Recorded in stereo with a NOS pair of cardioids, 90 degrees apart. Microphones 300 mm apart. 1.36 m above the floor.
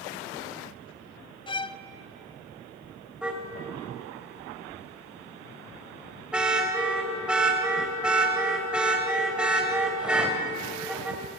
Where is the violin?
15° left, 0.6 m.